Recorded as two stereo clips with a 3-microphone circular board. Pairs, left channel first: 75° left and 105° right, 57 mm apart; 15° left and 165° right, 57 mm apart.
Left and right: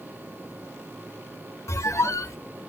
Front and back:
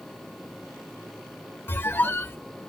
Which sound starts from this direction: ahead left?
A squeak, at 1.7 s.